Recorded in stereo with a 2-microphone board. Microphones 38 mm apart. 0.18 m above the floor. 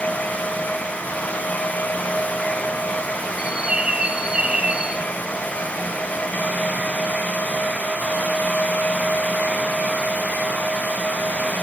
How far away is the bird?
About 2 m.